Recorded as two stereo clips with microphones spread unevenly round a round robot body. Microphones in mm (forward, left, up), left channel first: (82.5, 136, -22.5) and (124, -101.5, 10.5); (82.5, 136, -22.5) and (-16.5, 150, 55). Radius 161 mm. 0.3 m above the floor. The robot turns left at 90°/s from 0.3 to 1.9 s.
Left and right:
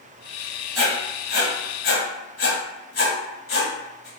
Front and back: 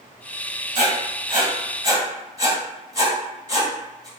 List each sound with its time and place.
0.8 s writing: 160° right, 1.8 m; by 4.1 s 95° left, 1.8 m